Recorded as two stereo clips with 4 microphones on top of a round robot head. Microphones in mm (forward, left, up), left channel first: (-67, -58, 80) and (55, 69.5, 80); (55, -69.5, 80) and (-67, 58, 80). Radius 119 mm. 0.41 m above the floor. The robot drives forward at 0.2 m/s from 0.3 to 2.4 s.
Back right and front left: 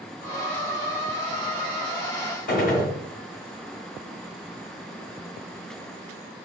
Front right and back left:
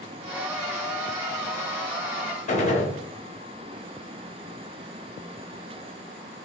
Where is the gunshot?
95° right, 1.0 m.